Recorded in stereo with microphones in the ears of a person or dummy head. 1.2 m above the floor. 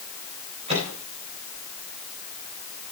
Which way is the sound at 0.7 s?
35° right (ahead or behind).